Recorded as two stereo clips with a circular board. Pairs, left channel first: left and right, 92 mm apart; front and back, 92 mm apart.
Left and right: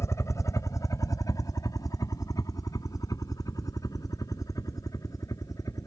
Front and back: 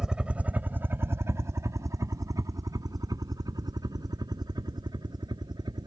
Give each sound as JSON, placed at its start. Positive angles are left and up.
{"t": 0.0, "sound": "a helicopter", "azimuth_deg": 105}